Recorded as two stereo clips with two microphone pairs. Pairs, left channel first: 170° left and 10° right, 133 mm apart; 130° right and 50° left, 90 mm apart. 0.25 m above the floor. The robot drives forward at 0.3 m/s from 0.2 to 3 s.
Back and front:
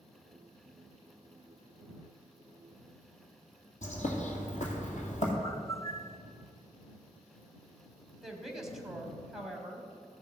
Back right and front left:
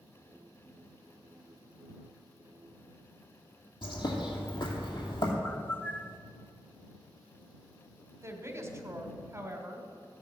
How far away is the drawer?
No drawer in this recording.